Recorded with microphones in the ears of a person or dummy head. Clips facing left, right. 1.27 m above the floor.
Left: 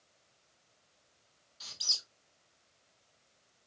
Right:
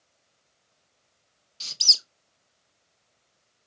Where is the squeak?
40° right (ahead or behind), 0.7 m.